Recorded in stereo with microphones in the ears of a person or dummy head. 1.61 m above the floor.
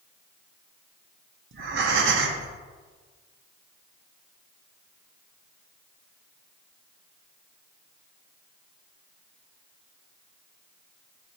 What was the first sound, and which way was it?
Breathing, 65° right (ahead or behind).